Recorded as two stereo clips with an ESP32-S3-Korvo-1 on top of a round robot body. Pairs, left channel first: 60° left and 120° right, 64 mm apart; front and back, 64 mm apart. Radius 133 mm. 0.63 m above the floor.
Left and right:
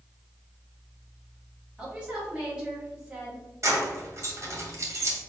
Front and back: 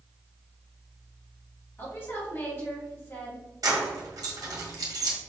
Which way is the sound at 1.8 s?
50° right.